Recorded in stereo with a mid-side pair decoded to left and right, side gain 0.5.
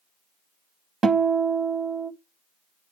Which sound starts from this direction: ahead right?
A guitar, at 1.0 s.